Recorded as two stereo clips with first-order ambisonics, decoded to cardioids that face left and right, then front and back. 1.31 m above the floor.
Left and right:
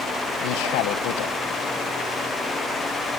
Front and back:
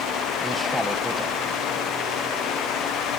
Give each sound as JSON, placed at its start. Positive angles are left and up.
{"t": 0.4, "sound": "a man speaking", "azimuth_deg": 90, "distance_m": 1.2}